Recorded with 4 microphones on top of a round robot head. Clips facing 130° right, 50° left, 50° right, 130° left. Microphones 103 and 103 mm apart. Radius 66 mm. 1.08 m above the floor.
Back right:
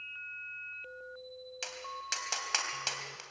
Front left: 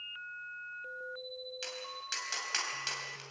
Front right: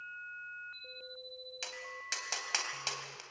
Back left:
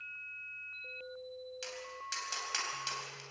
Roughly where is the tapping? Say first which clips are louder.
Back right 2 dB, back left 2 dB; right.